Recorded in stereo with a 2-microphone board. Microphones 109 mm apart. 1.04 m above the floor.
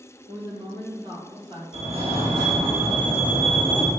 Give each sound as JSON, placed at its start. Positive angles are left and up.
{"t": 0.3, "sound": "a woman speaking", "side_deg": -60, "distance_m": 2.5}
{"t": 1.7, "sound": "a fire alarm", "side_deg": -65, "distance_m": 2.5}